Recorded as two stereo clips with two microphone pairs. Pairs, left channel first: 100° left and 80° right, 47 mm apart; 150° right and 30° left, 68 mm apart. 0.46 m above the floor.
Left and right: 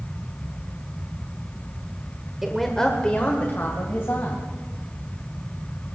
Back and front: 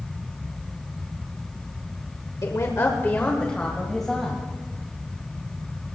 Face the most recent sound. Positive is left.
turn(degrees=120)